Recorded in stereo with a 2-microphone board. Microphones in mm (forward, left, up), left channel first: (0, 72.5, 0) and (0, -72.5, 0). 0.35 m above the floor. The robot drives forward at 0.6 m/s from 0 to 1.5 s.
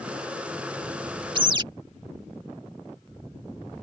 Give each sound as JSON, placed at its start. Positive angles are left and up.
{"t": 1.4, "sound": "a bird", "side_deg": -35}